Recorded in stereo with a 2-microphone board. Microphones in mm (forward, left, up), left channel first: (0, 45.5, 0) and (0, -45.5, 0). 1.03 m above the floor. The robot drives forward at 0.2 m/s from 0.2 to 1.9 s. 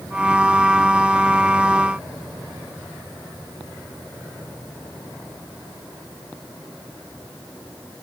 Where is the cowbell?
No cowbell in this recording.